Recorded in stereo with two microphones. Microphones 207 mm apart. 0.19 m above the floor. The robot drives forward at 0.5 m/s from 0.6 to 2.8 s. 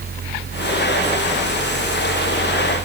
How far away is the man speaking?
I don't hear a man speaking.